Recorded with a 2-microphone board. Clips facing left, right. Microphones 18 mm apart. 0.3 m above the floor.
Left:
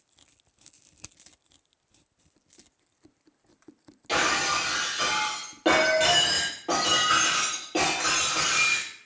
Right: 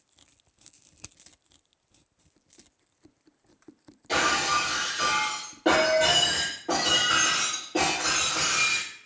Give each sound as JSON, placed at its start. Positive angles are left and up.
{"t": 4.1, "sound": "breaking glass", "side_deg": 55, "distance_m": 1.7}